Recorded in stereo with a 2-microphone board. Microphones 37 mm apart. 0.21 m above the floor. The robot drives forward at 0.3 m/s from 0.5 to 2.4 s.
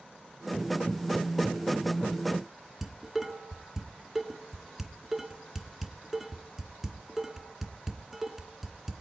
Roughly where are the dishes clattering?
Centre.